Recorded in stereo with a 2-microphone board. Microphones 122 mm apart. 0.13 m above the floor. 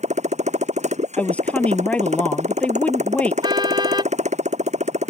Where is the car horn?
35° right (ahead or behind).